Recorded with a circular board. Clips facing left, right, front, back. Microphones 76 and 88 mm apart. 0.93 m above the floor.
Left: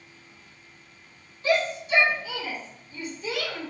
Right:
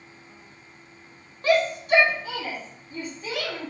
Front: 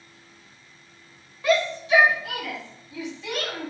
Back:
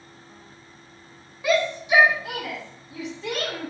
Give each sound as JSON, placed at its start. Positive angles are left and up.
{"t": 1.4, "sound": "a shout", "azimuth_deg": -100, "distance_m": 1.0}